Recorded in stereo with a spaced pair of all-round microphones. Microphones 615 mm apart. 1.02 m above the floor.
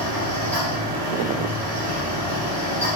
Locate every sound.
0.0 s a fan: 85° right, 1.7 m